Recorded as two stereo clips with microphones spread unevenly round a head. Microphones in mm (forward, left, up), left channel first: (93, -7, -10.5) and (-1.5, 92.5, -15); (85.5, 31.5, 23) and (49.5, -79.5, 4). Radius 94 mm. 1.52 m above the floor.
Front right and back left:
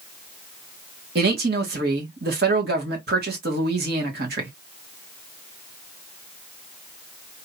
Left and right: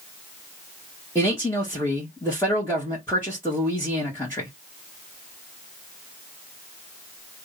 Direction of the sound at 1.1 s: 150° left.